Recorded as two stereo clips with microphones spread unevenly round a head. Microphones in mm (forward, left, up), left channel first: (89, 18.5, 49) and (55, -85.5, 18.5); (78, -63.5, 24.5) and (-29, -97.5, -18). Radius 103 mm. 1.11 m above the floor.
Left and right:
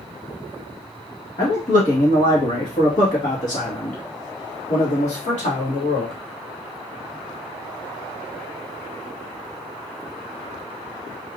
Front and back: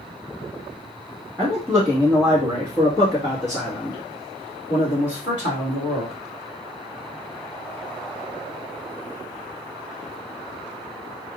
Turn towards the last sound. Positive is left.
turn(degrees=55)